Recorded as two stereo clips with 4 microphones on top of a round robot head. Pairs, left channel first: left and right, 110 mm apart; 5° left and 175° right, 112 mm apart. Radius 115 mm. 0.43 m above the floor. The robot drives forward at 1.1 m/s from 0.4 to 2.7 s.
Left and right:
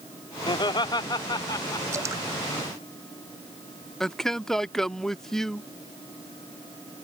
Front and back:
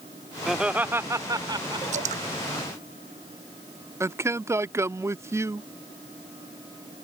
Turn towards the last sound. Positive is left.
turn(degrees=170)